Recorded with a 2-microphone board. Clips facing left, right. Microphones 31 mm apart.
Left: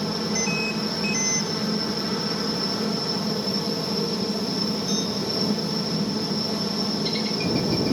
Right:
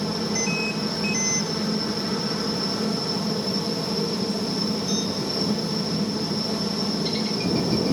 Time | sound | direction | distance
0.0 | a helicopter | 15° left (ahead or behind) | ?